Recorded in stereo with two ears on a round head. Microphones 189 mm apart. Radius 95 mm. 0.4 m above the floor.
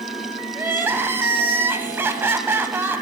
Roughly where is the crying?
Centre.